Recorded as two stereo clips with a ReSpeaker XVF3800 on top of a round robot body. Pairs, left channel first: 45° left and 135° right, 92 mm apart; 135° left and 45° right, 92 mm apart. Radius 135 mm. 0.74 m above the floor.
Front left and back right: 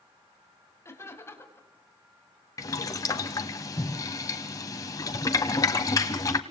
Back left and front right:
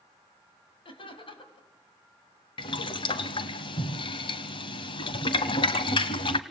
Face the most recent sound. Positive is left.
turn(degrees=100)